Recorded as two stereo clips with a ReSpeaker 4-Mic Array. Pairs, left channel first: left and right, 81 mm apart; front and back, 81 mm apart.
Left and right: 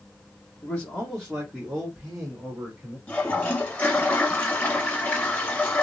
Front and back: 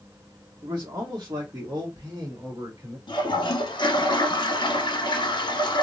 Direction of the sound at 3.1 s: 20° left.